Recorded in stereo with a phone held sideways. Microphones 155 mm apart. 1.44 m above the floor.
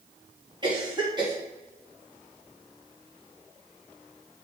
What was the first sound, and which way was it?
A cough, 30° right (ahead or behind).